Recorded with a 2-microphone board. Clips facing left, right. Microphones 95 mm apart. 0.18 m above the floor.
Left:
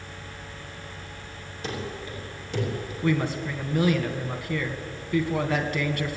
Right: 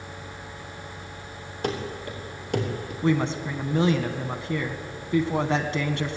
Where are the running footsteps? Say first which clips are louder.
Right 4 dB; 60° right (ahead or behind), 5.5 m.